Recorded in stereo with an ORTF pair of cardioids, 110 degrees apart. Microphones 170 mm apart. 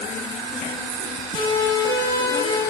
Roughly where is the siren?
Ahead left.